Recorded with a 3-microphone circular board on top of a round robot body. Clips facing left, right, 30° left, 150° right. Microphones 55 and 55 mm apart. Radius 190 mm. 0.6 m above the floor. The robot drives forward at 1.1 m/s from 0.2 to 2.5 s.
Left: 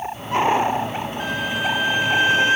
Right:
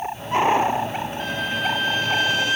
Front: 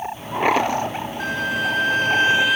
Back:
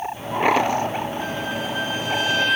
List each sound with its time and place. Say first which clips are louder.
1.2 s a violin: left 2 dB, front 4 dB; 5° left, 1.5 m; by 2.6 s 110° left, 0.6 m